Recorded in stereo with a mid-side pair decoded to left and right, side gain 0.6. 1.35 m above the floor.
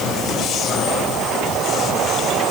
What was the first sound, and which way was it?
Only background noise.